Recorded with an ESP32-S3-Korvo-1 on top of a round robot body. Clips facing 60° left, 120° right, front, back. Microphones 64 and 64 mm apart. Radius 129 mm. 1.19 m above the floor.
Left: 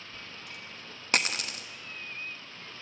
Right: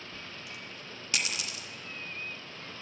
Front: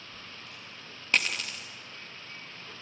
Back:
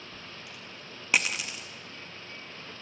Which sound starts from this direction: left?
A dropped coin, at 0.1 s.